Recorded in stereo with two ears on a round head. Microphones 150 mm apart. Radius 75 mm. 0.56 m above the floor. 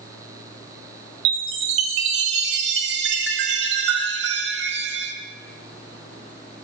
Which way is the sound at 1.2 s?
75° right (ahead or behind).